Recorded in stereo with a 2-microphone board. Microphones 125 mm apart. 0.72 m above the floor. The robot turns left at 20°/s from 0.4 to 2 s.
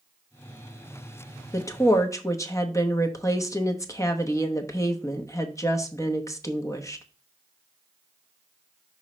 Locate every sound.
1.5 s a woman speaking: 25° left (ahead or behind), 0.9 m